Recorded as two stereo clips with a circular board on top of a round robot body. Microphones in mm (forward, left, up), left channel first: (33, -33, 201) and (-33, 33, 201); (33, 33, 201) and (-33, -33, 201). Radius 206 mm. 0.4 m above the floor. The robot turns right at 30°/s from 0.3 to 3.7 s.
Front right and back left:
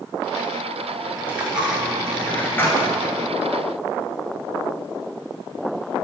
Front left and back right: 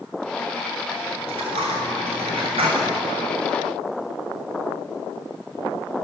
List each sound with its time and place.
1.2 s a dropped coin: 155° right, 0.7 m; by 2.9 s 105° right, 0.7 m